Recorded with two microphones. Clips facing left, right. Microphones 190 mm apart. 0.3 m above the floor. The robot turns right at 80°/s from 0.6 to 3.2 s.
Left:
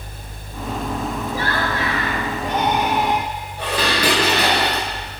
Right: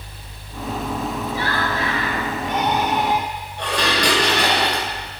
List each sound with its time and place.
1.3 s laughter: 45° left, 4.5 m; by 3.3 s 165° right, 4.5 m
3.6 s dishes clattering: 5° left (ahead or behind), 2.5 m